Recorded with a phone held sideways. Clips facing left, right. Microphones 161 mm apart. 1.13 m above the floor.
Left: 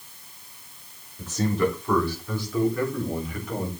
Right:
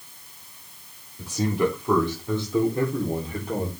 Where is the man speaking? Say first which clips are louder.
Even; 10° right (ahead or behind), 3 m; by 3.7 s 35° right (ahead or behind), 4 m.